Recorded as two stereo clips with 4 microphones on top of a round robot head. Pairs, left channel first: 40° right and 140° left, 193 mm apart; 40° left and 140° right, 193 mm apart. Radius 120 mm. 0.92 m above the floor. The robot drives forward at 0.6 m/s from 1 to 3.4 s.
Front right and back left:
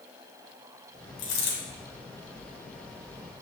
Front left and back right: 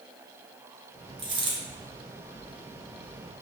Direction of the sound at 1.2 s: 70° right.